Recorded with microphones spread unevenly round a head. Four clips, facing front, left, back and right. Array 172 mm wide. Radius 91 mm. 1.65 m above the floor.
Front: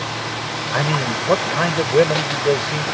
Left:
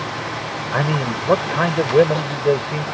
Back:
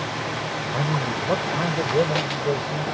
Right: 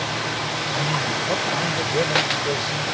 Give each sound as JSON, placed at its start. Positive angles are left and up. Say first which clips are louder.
{"t": 0.7, "sound": "a man speaking", "louder": "left 6 dB, front 5 dB", "azimuth_deg": 50}